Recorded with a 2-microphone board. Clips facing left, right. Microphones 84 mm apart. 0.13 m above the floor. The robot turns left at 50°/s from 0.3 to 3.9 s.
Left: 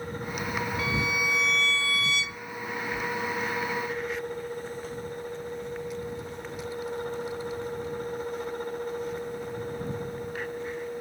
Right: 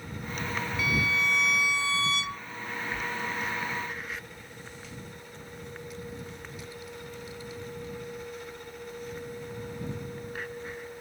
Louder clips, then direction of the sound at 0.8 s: Right 3 dB; 35° left.